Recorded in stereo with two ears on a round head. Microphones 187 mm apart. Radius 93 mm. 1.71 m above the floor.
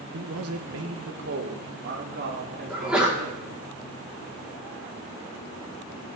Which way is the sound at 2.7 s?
5° right (ahead or behind).